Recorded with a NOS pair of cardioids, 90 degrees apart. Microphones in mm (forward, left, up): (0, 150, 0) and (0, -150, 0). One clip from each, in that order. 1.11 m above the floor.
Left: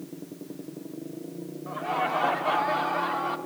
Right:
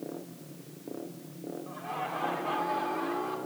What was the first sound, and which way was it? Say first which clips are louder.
Laughter: left 9 dB; 50° left.